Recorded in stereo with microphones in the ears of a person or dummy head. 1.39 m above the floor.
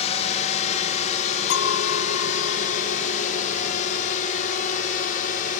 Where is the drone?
40° left (ahead or behind); by 5.6 s 50° left (ahead or behind).